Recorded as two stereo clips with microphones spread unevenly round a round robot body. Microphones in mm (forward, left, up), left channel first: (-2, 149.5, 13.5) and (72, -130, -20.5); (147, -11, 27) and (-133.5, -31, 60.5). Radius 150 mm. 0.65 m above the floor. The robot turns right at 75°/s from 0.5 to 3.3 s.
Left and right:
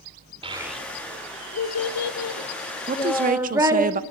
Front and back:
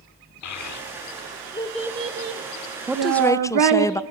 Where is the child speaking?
5° right, 1.7 m; by 3.9 s 155° right, 1.7 m.